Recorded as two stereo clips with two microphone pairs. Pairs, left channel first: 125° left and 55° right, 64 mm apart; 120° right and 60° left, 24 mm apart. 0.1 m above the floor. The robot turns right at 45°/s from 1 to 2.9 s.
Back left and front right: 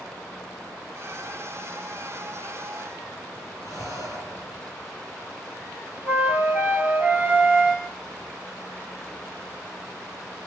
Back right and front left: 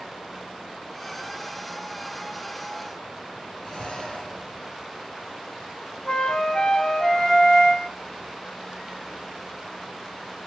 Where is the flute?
110° right, 1.7 m.